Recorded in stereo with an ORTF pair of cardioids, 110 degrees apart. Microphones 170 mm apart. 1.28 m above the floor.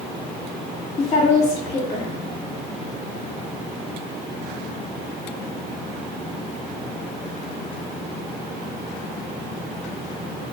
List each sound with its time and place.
1.0 s a woman speaking: 35° left, 2.5 m